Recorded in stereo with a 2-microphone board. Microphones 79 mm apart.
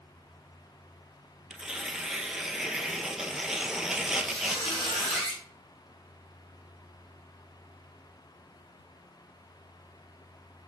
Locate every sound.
1.5 s tearing paper: 5° right (ahead or behind), 0.6 m
4.2 s a squeak: 5° left (ahead or behind), 3 m